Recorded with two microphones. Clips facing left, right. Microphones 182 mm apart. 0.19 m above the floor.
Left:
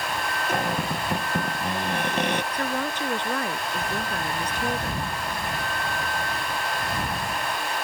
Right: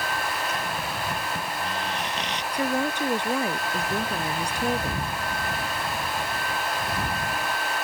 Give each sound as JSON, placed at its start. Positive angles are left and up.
{"t": 0.5, "sound": "a cupboard door", "side_deg": 55}
{"t": 2.5, "sound": "a woman speaking", "side_deg": -10}